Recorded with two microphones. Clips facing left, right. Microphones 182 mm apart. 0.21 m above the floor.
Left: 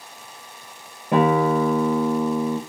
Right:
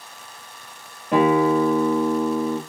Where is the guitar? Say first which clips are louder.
Right 1 dB; 25° left (ahead or behind), 3 m.